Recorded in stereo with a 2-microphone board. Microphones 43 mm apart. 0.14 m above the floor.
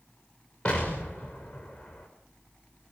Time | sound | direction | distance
0.7 | an explosion | 20° left (ahead or behind) | 6.5 m